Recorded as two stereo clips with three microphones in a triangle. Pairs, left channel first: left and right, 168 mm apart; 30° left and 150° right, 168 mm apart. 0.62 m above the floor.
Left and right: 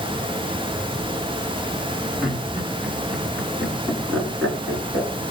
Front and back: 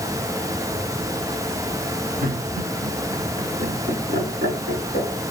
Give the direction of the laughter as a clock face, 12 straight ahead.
6 o'clock.